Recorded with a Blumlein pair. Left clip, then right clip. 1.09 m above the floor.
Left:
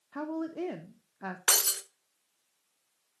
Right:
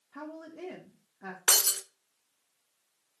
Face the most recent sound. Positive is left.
turn(degrees=-5)